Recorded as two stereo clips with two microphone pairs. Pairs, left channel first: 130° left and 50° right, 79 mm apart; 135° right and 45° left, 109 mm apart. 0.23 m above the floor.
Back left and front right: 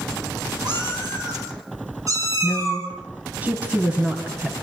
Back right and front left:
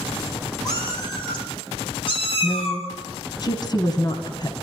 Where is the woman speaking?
110° right, 1.8 m.